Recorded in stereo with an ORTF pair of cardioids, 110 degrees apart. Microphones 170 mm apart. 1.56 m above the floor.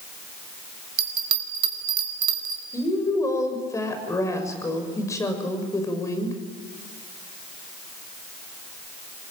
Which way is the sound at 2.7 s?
20° left.